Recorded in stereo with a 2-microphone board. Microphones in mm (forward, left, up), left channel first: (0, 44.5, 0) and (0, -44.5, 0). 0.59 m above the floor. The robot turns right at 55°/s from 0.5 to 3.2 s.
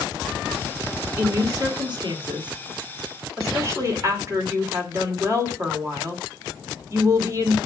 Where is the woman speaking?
150° right, 1.9 m; by 7.6 s 40° right, 1.9 m.